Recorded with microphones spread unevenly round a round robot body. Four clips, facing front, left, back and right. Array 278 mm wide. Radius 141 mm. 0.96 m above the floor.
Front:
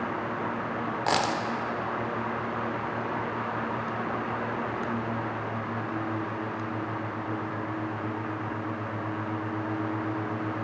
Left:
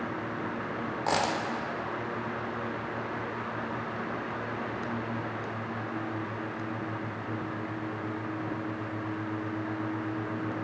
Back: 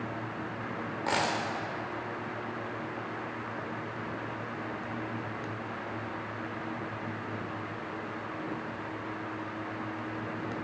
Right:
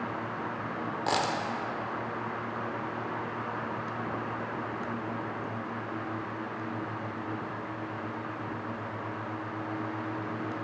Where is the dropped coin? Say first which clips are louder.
Left 1 dB, front 3 dB; 35° left, 0.6 m.